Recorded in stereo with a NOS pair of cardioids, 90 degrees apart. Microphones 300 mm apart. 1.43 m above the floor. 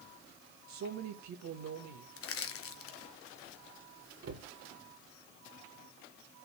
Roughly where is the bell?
I don't hear a bell.